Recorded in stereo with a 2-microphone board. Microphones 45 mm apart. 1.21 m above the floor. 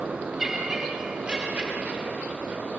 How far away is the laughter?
About 3.5 m.